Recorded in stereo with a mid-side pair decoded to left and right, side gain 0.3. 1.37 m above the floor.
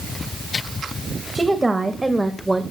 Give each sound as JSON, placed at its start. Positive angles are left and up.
{"t": 1.4, "sound": "a woman speaking", "azimuth_deg": -20, "distance_m": 2.0}